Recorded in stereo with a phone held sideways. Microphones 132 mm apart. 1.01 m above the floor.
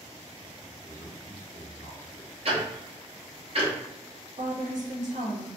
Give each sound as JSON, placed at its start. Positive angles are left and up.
{"t": 0.7, "sound": "a man speaking", "side_deg": -60, "distance_m": 1.6}
{"t": 2.5, "sound": "ticking", "side_deg": -50, "distance_m": 0.8}
{"t": 4.4, "sound": "a woman speaking", "side_deg": -70, "distance_m": 1.1}